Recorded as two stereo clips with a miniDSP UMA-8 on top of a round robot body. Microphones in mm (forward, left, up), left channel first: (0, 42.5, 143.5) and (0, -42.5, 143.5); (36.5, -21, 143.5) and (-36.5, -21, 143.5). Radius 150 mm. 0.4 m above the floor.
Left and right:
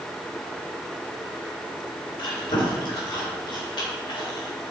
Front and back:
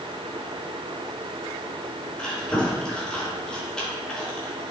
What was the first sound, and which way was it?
Chewing, 80° left.